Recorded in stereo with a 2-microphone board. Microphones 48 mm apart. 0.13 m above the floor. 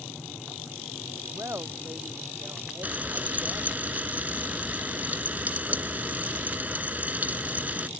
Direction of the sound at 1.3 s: 65° right (ahead or behind).